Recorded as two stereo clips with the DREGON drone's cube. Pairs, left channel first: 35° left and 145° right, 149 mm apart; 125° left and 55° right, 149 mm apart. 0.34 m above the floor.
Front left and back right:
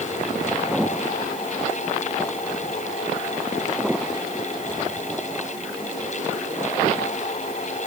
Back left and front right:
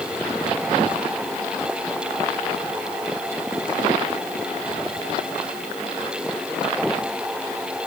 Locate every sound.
Only background noise.